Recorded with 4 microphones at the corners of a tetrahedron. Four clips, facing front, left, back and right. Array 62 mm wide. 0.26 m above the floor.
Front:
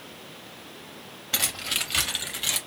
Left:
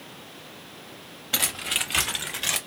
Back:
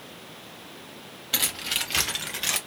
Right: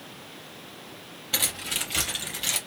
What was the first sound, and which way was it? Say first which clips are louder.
Keys jangling: left 3 dB, even; 55° left.